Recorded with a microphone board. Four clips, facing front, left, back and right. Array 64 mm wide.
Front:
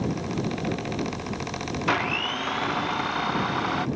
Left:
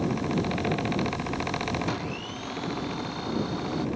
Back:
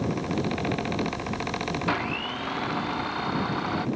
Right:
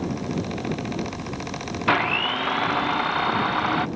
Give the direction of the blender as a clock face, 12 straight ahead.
3 o'clock.